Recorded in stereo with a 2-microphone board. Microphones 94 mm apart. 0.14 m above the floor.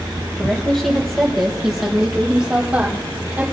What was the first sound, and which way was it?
A woman speaking, 10° left (ahead or behind).